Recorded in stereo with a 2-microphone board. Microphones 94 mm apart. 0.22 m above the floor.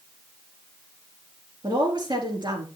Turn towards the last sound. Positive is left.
turn(degrees=-50)  # may be behind; listen again after turning